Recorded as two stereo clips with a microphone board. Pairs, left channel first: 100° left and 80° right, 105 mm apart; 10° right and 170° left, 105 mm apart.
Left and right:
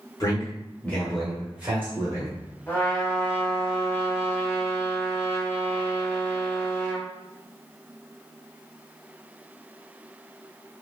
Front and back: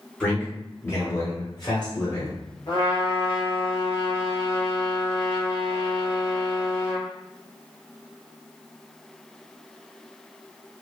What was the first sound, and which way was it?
A man speaking, 65° left.